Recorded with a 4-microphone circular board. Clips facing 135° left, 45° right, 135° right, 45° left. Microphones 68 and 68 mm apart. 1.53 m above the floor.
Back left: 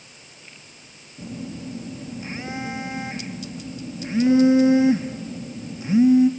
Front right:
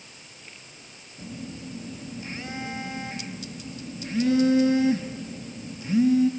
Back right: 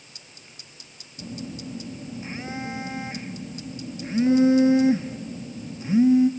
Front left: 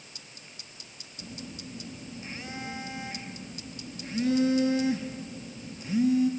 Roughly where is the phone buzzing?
Behind.